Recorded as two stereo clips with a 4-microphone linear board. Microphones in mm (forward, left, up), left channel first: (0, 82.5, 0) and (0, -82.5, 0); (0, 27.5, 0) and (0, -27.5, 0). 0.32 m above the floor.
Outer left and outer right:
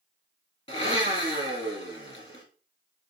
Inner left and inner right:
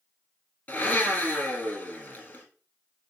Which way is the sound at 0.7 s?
35° left (ahead or behind).